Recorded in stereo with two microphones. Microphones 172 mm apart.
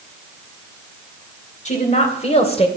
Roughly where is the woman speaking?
Left.